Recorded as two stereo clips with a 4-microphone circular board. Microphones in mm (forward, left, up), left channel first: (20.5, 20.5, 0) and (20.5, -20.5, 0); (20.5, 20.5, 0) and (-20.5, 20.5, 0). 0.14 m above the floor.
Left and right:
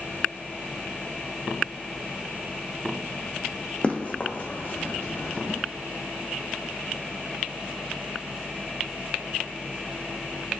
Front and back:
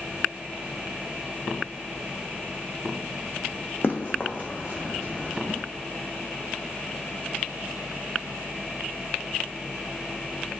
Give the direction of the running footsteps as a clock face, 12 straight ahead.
11 o'clock.